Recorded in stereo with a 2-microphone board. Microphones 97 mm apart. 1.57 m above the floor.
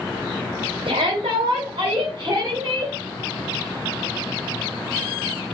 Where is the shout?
85° right, 0.7 m; by 2.9 s 50° right (ahead or behind), 1.5 m.